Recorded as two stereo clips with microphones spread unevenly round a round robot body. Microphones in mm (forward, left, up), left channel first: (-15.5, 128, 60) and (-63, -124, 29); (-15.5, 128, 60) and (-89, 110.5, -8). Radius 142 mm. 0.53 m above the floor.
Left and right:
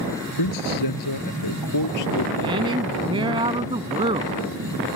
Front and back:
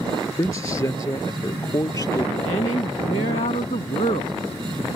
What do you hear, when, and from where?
0.3 s a man speaking: 60° left; by 3.4 s 50° left
2.4 s a woman speaking: 25° right